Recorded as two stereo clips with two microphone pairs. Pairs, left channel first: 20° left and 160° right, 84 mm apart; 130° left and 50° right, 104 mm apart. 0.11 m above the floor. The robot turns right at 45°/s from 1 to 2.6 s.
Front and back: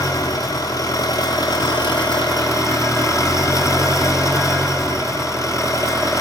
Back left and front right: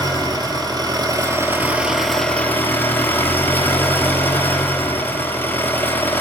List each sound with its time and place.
0.0 s an engine running: 10° right, 1.0 m; by 6.2 s 60° left, 1.0 m